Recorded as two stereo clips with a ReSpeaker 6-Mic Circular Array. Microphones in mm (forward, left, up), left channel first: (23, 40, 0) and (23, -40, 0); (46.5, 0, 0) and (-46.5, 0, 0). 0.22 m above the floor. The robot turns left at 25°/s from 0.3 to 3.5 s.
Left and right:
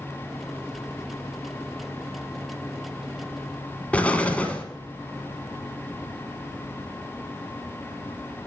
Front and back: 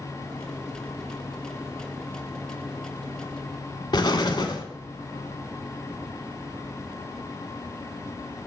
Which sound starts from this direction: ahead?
An explosion, at 3.9 s.